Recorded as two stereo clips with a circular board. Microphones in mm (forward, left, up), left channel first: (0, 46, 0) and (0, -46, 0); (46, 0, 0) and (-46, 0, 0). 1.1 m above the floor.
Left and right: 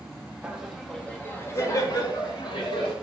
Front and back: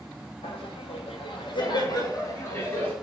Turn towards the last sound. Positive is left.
turn(degrees=65)